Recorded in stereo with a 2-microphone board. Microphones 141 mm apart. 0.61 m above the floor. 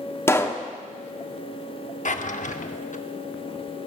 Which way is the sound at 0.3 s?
20° left (ahead or behind).